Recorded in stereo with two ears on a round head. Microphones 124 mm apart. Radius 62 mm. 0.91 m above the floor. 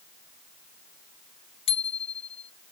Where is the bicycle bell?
45° left (ahead or behind).